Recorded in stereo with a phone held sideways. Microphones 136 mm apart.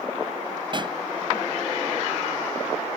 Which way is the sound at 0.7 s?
35° right (ahead or behind).